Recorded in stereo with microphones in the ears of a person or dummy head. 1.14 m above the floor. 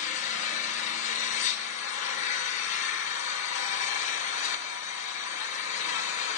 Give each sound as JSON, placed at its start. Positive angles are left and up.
{"t": 0.0, "sound": "an engine running", "side_deg": 45, "distance_m": 1.1}